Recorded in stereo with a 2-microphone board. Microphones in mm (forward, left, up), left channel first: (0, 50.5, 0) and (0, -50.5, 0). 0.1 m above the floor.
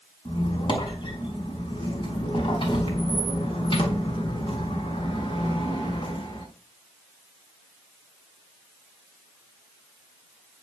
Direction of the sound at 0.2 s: 60° left (ahead or behind).